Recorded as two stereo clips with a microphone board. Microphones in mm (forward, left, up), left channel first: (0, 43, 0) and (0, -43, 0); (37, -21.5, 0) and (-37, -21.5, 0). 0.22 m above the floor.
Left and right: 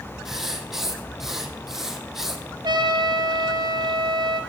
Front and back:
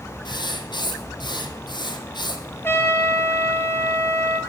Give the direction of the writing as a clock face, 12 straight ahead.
12 o'clock.